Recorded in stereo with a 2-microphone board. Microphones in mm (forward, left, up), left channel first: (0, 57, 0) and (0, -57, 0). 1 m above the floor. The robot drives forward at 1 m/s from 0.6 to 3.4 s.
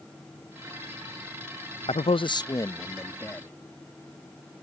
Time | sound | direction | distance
1.9 | a man speaking | 60° left (ahead or behind) | ?